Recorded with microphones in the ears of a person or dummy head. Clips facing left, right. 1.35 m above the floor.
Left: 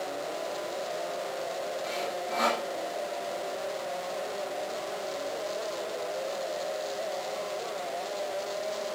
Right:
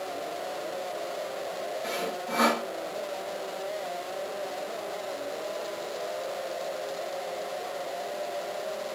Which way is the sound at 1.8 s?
60° right (ahead or behind).